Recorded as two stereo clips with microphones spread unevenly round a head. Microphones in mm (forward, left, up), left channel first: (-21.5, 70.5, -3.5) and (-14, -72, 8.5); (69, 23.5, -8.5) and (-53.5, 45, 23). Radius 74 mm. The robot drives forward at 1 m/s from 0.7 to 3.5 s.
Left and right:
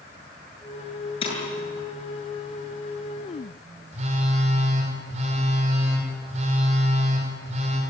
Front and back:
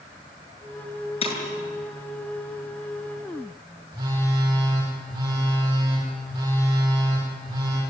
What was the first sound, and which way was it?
Breaking glass, 35° left.